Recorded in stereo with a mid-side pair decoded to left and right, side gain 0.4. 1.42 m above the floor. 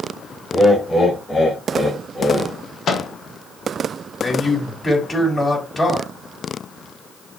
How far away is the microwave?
About 1.0 m.